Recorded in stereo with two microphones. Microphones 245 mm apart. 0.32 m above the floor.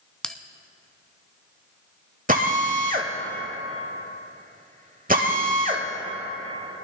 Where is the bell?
5° left (ahead or behind), 0.5 m.